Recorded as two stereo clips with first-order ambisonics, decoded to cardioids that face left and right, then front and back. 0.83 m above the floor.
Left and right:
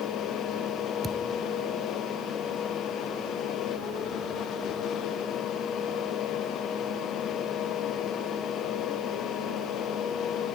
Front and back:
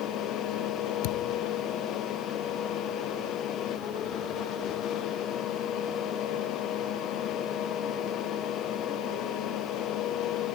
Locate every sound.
1.0 s a thud: 10° right